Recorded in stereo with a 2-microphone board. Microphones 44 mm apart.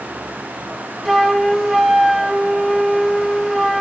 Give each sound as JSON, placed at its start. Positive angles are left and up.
{"t": 1.1, "sound": "a flute", "side_deg": -5, "distance_m": 0.5}